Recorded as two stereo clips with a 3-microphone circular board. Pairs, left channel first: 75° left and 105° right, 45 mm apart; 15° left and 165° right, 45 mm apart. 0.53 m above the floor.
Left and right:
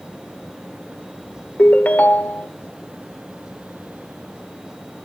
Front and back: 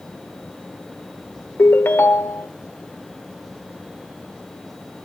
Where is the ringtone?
30° left, 1.0 m.